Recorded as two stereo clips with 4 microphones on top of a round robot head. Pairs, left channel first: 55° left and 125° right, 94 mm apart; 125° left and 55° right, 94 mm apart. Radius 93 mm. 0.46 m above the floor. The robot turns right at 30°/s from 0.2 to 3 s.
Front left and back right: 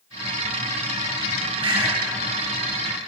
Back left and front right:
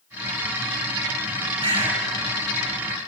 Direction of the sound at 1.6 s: 85° right.